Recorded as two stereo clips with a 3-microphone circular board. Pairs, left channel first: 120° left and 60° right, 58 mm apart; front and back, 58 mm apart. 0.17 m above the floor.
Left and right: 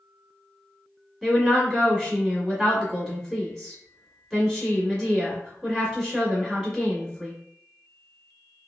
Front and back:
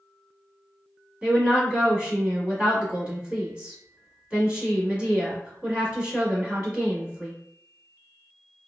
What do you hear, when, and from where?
1.2 s a woman speaking: 165° right, 1.4 m